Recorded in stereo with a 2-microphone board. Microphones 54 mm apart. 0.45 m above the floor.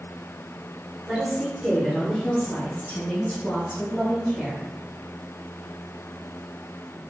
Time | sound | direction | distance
1.1 | a woman speaking | 10° right (ahead or behind) | 1.4 m